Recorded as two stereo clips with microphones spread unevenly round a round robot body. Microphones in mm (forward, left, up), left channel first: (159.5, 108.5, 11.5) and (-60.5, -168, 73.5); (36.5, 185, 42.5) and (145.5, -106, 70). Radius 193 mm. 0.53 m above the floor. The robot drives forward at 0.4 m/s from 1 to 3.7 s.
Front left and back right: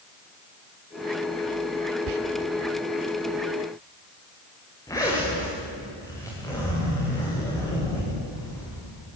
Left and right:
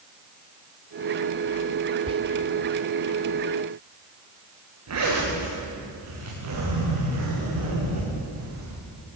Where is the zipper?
30° right, 10 m.